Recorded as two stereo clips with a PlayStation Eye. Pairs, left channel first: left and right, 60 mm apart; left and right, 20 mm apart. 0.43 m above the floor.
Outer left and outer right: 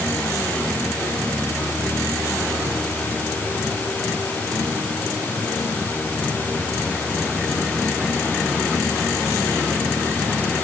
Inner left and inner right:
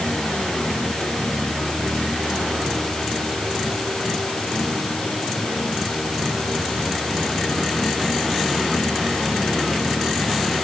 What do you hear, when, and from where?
Only background noise.